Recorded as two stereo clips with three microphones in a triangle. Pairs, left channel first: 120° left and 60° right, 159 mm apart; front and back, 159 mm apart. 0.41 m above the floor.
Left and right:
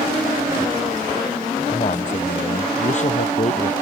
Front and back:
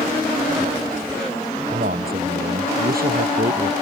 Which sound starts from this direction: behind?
A man speaking, at 1.7 s.